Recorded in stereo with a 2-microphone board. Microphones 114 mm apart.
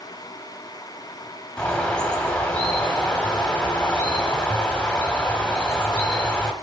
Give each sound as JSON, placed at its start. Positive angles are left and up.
{"t": 1.6, "sound": "a bird", "side_deg": 10, "distance_m": 0.8}